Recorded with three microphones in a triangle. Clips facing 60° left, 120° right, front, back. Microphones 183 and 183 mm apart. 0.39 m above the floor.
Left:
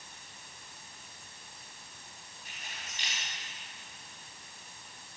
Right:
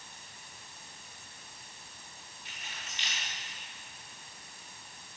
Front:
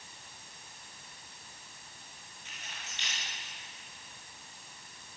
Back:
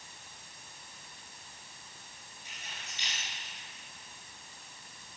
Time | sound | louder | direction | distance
2.5 | keys jangling | even, even | 105° left | 4.5 m